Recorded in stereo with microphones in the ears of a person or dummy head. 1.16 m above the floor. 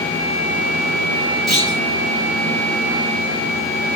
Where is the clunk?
5° left (ahead or behind), 4 m.